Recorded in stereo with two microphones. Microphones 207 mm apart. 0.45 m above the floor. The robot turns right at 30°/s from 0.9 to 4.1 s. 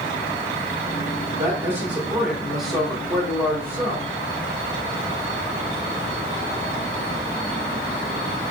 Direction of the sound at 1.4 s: 15° right (ahead or behind).